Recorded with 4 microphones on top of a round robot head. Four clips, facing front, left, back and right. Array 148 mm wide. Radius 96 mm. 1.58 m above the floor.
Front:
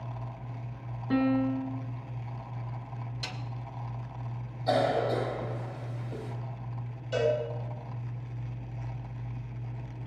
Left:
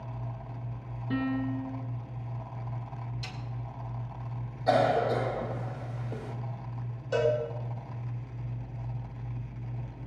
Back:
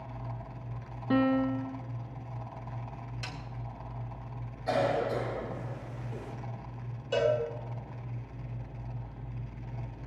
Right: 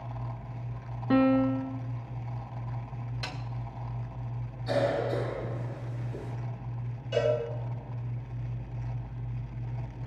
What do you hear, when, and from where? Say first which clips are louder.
1.1 s a piano: right 8 dB, even; 105° right, 0.8 m
3.2 s a snare drum: right 4 dB, even; 75° right, 3 m
4.7 s a cough: left 4 dB, front 2 dB; 80° left, 3 m
7.1 s a cowbell: even, even; 125° left, 4.5 m